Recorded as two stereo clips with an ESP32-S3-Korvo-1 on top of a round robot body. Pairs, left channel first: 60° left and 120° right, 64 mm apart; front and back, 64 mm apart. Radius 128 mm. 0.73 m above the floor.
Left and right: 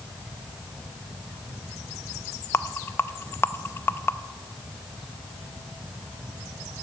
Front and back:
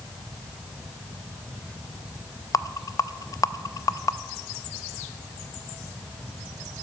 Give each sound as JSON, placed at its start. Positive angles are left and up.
{"t": 2.5, "sound": "a rattle", "azimuth_deg": 15, "distance_m": 0.6}